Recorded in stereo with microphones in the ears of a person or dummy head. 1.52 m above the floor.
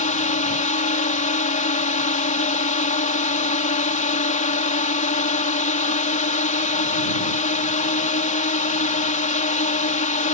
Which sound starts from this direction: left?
A drone, at 0.0 s.